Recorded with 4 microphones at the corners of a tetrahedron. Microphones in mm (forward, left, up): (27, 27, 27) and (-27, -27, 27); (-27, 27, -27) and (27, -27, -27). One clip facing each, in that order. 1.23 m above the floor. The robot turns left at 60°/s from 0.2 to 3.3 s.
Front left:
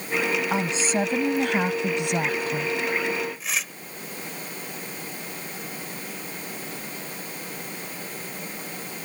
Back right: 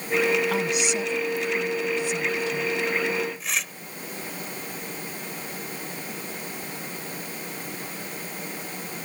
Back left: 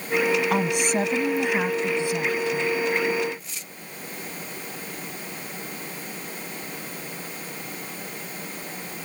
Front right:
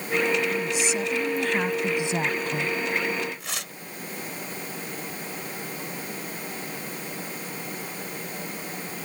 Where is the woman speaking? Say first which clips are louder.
Even, back left 4 dB; 115° left; by 2.7 s 15° right.